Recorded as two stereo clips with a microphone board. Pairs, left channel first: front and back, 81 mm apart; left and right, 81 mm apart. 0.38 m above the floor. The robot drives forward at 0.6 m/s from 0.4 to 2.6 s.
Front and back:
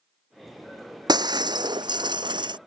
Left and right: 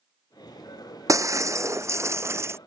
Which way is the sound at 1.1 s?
140° right.